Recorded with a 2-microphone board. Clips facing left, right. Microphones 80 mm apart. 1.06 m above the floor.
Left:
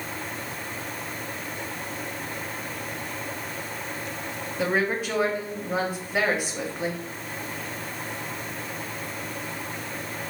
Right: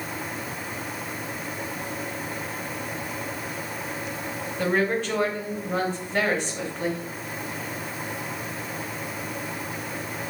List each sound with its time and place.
4.6 s a woman speaking: 10° left (ahead or behind), 1.0 m